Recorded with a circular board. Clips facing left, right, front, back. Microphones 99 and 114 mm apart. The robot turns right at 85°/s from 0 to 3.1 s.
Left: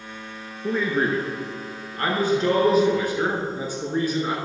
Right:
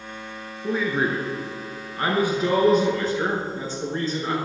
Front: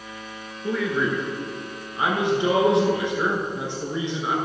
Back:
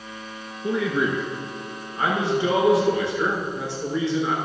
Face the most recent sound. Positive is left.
turn(degrees=35)